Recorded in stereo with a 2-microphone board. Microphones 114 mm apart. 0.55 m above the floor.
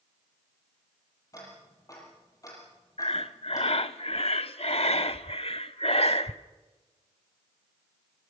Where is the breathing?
60° left (ahead or behind), 0.7 m.